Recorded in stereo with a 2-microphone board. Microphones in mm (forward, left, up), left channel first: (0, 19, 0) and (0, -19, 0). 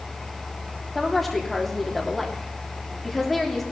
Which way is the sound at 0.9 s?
Centre (ahead or behind).